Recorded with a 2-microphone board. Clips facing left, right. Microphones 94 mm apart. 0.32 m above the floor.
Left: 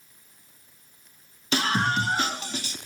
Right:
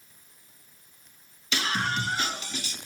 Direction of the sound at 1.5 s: 45° left (ahead or behind).